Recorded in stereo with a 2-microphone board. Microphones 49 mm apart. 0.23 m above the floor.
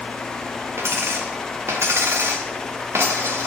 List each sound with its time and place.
0.8 s a dropped coin: 65° right (ahead or behind), 1.9 m